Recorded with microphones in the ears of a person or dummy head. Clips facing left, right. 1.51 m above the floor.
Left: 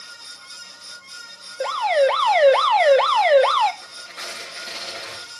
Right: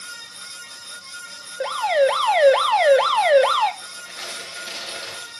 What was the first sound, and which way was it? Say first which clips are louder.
An alarm: even; 10° right (ahead or behind).